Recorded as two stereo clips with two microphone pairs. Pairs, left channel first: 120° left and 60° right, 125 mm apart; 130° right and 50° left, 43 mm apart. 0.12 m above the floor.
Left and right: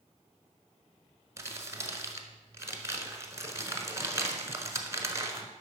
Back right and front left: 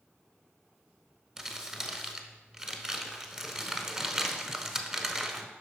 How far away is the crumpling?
About 1.1 m.